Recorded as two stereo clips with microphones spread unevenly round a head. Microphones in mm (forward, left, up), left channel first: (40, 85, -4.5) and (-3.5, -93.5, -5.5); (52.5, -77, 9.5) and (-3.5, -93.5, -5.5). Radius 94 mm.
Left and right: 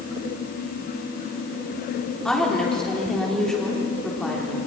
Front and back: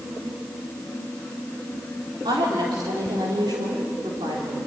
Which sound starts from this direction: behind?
A woman speaking, at 2.2 s.